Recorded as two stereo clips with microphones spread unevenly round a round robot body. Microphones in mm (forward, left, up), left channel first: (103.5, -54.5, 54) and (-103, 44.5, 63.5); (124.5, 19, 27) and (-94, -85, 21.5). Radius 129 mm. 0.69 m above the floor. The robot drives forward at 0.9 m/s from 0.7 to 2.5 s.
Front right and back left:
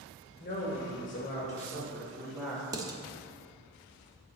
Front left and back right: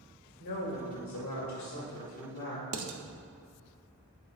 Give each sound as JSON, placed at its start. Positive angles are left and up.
{"t": 0.4, "sound": "a woman speaking", "azimuth_deg": 25, "distance_m": 2.5}
{"t": 2.7, "sound": "dishes clattering", "azimuth_deg": -130, "distance_m": 0.7}